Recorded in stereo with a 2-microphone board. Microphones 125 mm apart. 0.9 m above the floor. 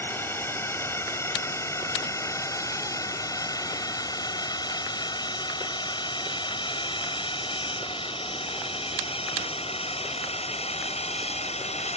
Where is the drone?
20° left (ahead or behind); by 12.0 s 60° left (ahead or behind).